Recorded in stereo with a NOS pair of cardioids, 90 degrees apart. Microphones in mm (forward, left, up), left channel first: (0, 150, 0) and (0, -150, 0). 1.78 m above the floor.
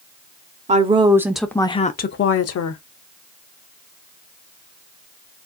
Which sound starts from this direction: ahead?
A woman speaking, at 0.7 s.